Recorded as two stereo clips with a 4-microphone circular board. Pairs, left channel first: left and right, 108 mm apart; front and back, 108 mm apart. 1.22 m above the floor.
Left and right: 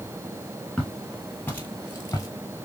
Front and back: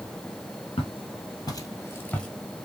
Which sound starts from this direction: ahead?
Footsteps, at 0.8 s.